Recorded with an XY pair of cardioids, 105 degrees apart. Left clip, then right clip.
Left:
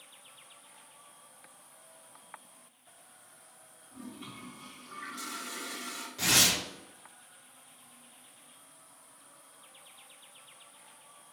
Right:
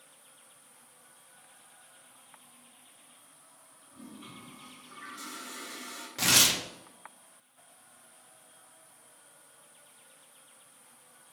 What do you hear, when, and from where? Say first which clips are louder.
3.9 s a toilet flushing: left 2 dB; 25° left, 0.7 m
6.2 s tearing paper: right 1 dB; 55° right, 0.7 m